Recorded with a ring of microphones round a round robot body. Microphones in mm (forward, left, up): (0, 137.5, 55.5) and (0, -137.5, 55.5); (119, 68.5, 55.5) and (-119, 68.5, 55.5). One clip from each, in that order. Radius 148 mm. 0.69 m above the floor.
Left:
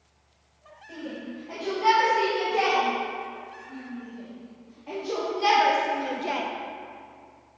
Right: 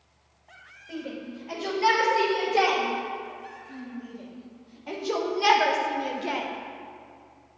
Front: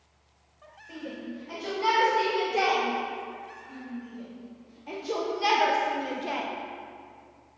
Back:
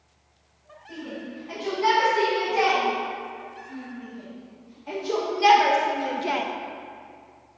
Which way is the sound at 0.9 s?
70° right.